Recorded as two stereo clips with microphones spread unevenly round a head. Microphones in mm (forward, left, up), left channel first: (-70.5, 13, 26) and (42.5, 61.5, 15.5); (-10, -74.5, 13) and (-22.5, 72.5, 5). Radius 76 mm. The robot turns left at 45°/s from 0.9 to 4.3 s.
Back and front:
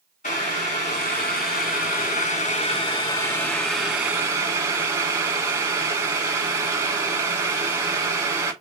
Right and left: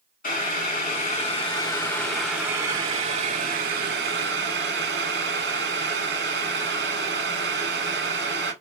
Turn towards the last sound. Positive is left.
turn(degrees=90)